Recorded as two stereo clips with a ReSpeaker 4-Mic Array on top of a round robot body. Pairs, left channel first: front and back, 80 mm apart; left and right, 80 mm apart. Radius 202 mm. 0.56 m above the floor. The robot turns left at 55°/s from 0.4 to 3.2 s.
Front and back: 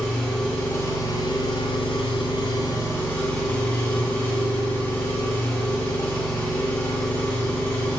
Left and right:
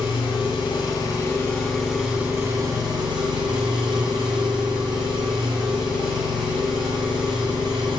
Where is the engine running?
75° left, 1.6 m; by 8.0 s 75° right, 1.6 m.